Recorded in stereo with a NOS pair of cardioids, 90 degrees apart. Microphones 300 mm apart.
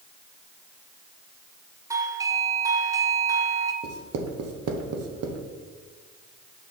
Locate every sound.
1.9 s a doorbell: 10° right, 1.0 m
3.8 s writing: 55° right, 1.3 m